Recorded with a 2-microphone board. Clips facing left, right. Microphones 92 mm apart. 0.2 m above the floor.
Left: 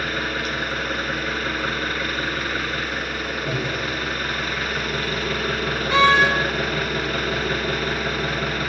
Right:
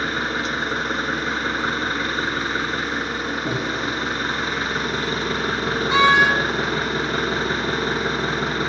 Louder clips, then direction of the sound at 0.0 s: Right 2 dB; 25° right (ahead or behind).